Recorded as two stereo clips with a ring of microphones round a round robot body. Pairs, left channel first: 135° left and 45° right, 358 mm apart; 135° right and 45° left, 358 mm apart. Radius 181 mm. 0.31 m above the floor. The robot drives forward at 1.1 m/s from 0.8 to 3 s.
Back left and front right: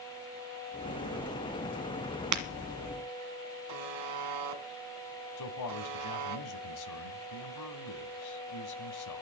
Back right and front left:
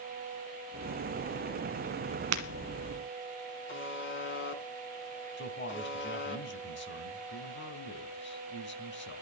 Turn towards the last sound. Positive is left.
turn(degrees=170)